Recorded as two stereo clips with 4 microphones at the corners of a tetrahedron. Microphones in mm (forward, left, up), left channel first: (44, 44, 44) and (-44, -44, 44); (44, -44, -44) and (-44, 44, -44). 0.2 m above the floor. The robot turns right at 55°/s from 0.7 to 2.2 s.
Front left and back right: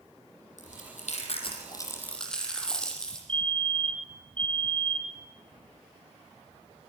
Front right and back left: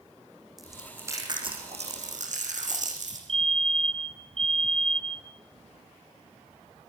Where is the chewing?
45° left, 7 m; by 3.2 s 130° left, 7 m.